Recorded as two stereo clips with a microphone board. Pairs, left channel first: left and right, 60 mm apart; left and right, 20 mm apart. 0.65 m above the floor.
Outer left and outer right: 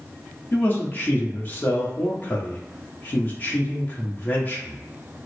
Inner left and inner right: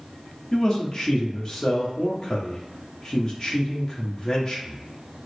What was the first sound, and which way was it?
A man speaking, 35° left (ahead or behind).